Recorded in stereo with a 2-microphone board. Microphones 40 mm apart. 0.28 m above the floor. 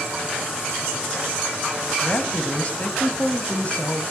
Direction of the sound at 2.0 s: 35° left (ahead or behind).